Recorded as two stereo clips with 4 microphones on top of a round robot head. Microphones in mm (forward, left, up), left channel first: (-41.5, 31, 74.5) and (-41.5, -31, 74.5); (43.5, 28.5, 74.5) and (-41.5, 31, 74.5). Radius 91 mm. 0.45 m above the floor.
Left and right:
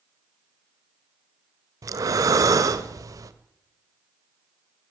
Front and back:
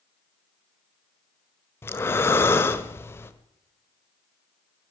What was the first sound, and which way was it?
Breathing, 65° right.